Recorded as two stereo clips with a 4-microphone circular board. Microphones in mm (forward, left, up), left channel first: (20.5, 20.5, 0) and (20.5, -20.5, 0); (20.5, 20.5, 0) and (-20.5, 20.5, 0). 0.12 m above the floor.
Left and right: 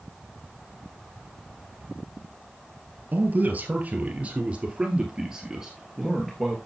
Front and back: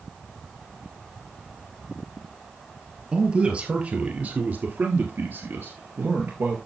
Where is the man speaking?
120° right, 2.5 m; by 6.6 s straight behind, 2.5 m.